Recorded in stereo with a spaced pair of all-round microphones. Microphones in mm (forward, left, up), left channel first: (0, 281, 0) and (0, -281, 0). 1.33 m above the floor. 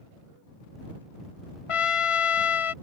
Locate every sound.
1.7 s a trumpet: 65° left (ahead or behind)